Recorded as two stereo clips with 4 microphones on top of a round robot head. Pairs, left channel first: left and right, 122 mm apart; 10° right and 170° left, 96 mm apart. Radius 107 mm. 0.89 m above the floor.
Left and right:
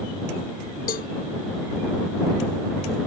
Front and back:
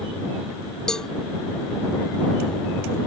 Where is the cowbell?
70° left.